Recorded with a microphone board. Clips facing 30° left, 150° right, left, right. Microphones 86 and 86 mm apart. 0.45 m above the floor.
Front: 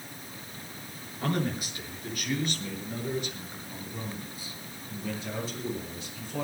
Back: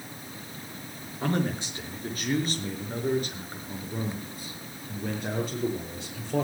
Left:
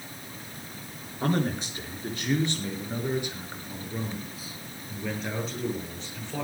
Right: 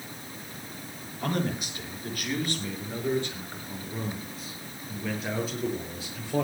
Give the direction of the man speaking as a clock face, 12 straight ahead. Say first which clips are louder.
Back 2 dB, left 3 dB; 7 o'clock.